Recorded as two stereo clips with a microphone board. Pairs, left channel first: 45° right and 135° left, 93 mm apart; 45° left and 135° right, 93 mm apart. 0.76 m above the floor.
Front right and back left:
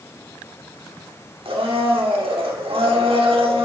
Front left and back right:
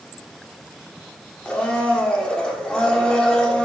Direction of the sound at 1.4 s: 125° left.